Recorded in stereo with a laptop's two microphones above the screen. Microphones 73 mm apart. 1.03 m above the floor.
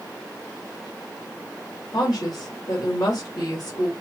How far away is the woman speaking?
About 1.9 m.